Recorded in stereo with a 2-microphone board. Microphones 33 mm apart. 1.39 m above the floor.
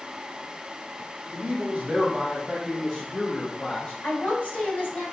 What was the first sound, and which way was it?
A man speaking, 65° right (ahead or behind).